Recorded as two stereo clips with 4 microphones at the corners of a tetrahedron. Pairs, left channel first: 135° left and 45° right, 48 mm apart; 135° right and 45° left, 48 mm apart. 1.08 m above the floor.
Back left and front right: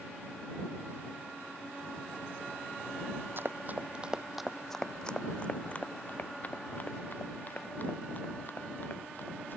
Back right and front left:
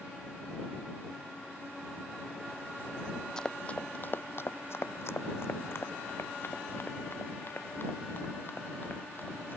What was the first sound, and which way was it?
Running footsteps, 60° right.